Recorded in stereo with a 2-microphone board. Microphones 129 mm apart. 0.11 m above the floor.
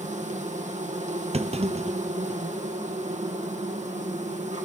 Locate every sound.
0.0 s an insect: 65° right (ahead or behind), 2.5 m
1.3 s a clunk: 55° right (ahead or behind), 0.7 m